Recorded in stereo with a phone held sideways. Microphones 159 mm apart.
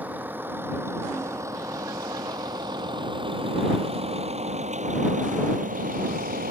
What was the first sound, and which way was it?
A vehicle, 10° right (ahead or behind).